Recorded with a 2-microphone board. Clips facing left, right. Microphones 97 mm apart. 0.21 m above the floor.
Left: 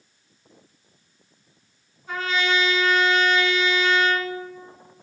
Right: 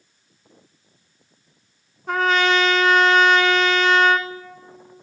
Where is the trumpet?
65° right (ahead or behind), 0.7 m.